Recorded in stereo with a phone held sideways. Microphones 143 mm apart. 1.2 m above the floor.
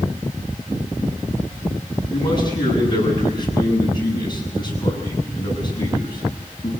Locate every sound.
2.1 s a man speaking: 30° left (ahead or behind), 10 m